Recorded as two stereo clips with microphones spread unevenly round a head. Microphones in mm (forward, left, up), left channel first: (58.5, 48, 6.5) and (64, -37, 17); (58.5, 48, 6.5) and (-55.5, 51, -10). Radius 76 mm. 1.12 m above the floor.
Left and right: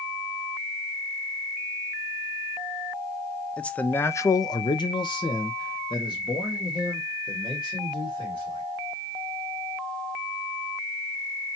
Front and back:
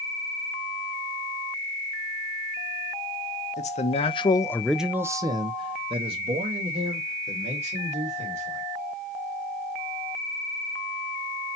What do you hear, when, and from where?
3.6 s a man speaking: 20° left, 0.8 m; by 8.6 s 155° left, 3 m